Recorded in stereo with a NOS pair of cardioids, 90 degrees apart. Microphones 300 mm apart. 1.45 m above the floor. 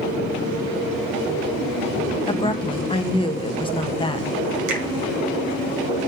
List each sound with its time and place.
2.3 s a woman speaking: 20° left, 0.8 m
4.7 s a finger snap: 70° right, 1.6 m